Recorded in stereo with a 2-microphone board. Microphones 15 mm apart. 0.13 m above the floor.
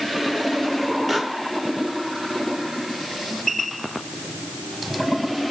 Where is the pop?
Centre (ahead or behind), 3.5 m.